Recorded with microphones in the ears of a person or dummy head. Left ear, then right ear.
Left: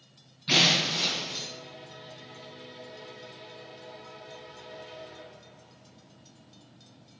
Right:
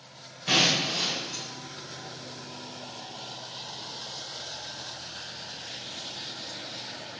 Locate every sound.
0.5 s breaking glass: 40° right (ahead or behind), 4 m